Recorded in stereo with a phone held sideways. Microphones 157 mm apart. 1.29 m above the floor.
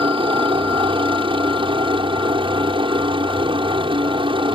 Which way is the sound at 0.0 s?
35° right (ahead or behind).